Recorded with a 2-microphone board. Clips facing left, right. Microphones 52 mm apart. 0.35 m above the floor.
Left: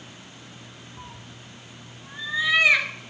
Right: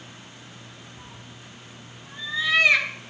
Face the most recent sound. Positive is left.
turn(degrees=10)  # may be behind; listen again after turning